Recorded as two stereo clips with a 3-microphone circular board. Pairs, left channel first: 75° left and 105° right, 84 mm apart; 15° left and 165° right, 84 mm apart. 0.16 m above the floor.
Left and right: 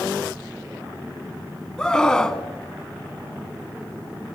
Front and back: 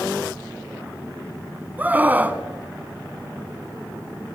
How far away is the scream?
About 1.2 m.